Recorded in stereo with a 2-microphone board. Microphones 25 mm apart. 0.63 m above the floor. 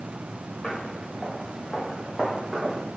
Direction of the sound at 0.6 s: 20° left (ahead or behind).